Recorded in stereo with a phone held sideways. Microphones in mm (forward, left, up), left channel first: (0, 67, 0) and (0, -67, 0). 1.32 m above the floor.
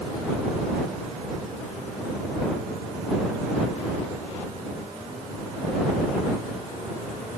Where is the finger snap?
I don't hear a finger snap.